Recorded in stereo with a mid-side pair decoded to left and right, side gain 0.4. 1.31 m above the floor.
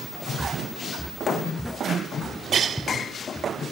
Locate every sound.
0.4 s footsteps: 5° right; by 3.7 s 5° left